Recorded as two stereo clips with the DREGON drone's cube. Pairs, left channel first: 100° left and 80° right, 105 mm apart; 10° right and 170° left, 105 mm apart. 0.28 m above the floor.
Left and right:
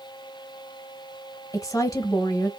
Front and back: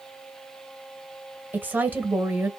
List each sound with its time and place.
1.5 s a woman speaking: 110° left, 1.1 m